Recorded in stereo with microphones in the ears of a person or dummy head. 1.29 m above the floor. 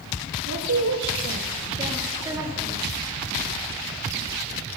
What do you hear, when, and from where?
0.5 s a woman speaking: 85° right, 2 m; by 2.8 s 10° right (ahead or behind), 3.5 m